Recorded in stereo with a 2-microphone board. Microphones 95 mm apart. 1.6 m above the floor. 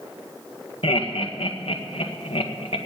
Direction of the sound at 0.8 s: 80° left.